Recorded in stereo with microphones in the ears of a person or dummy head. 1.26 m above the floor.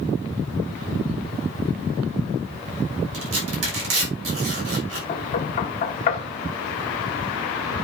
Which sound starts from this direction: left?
Knocking, at 5.1 s.